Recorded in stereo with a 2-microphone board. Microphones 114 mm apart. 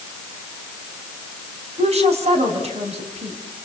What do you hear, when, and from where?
1.8 s a woman speaking: 70° right (ahead or behind), 6 m